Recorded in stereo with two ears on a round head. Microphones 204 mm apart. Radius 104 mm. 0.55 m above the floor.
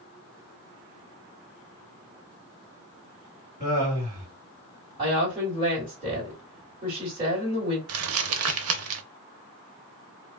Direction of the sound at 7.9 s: 70° right (ahead or behind).